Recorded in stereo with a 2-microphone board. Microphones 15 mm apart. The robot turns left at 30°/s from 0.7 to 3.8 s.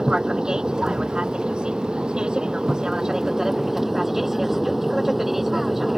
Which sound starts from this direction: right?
An aircraft, at 0.0 s.